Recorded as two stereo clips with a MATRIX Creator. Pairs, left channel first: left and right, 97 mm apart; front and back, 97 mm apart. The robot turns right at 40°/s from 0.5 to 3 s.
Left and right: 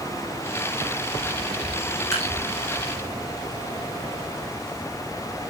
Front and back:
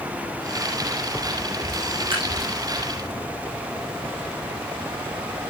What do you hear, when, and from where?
2.1 s dripping: 145° left, 7.5 m; by 2.3 s 155° left, 7.5 m